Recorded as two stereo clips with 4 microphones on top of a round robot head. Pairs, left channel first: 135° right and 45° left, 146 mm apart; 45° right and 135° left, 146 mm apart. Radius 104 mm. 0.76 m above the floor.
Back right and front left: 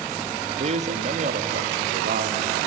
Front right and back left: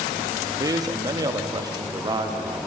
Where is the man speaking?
75° left, 1.5 m.